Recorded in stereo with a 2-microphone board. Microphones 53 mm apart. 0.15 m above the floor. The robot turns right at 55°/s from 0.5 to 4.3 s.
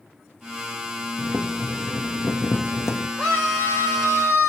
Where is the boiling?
25° right, 1.5 m; by 3.1 s 80° left, 1.5 m.